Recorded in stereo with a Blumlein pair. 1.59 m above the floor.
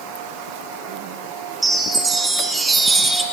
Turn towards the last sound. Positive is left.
turn(degrees=-15)